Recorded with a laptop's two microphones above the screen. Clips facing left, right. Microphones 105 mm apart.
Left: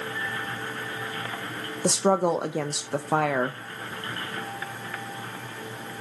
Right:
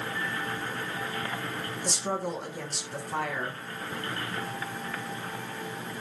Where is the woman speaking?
70° left (ahead or behind), 0.5 m.